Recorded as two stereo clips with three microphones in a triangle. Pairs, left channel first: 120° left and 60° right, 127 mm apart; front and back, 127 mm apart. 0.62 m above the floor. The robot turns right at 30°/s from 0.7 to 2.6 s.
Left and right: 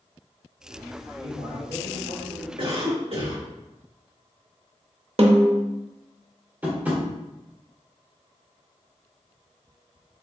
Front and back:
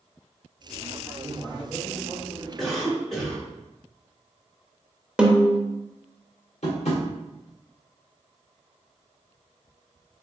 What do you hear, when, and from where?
1.2 s a man speaking: 100° right, 1.3 m; by 2.5 s 60° right, 1.3 m
2.6 s a cough: 90° right, 1.7 m
5.2 s a snare drum: 95° right, 0.7 m
6.6 s tapping: 15° left, 1.5 m